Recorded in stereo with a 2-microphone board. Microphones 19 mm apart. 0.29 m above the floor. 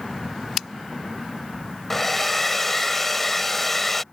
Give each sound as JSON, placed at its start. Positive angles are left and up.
{"t": 1.9, "sound": "a hair dryer", "side_deg": 15}